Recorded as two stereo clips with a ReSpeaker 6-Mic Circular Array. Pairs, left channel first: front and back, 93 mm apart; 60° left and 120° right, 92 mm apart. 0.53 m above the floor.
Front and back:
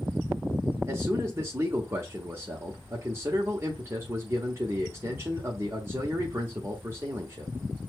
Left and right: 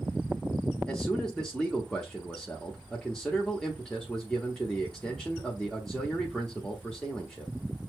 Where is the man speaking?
140° left, 0.8 m.